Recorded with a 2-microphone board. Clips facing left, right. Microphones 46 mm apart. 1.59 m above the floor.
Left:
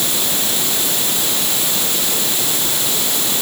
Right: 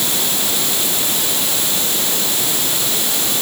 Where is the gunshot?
No gunshot in this recording.